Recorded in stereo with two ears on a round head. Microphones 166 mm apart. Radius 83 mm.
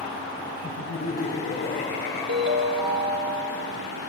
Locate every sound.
0.6 s laughter: 60° left (ahead or behind), 5 m
2.3 s a ringtone: 65° right (ahead or behind), 3 m